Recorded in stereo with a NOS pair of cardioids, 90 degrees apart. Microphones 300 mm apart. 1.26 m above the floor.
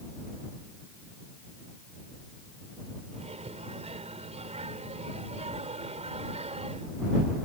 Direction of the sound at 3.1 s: 20° right.